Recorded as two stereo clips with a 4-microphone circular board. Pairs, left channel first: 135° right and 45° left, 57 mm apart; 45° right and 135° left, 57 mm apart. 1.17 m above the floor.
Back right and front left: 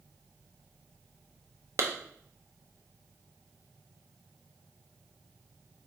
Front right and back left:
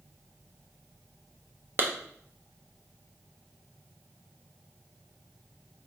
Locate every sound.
1.8 s a clap: 85° left, 0.6 m